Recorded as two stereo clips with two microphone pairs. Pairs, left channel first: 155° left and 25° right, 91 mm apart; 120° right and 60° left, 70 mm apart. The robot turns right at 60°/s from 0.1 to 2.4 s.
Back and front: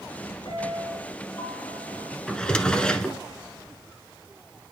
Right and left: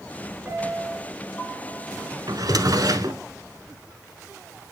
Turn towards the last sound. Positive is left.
turn(degrees=80)